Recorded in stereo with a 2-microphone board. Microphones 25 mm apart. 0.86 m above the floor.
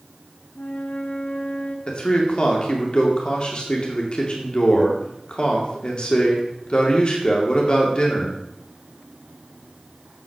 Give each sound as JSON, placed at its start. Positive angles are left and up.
{"t": 0.6, "sound": "a flute", "side_deg": 60, "distance_m": 1.4}
{"t": 1.9, "sound": "a man speaking", "side_deg": 40, "distance_m": 2.5}